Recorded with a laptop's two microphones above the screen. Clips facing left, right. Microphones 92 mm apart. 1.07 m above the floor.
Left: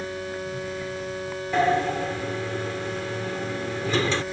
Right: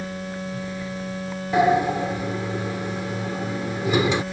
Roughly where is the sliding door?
Centre.